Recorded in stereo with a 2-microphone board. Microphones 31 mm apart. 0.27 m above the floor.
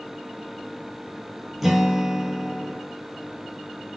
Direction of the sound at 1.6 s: 5° right (ahead or behind).